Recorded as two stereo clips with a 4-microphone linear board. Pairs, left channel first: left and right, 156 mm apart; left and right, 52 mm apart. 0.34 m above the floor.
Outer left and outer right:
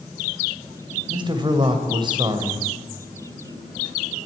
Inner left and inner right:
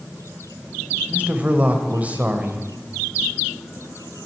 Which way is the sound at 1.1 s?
30° right (ahead or behind).